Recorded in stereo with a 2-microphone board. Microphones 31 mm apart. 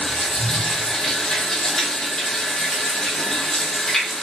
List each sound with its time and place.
0.0 s running water: 15° left (ahead or behind), 0.7 m